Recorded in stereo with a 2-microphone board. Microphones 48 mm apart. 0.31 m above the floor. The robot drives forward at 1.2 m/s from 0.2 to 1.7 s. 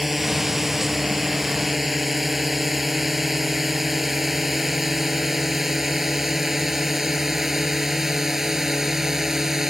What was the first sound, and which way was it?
A drone, 5° right (ahead or behind).